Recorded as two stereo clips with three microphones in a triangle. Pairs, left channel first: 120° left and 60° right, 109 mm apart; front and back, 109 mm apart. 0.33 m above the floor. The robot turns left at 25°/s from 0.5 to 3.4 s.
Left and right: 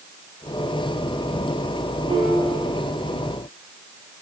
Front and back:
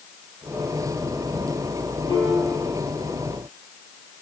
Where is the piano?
30° right, 5.5 m; by 2.7 s 45° right, 5.5 m.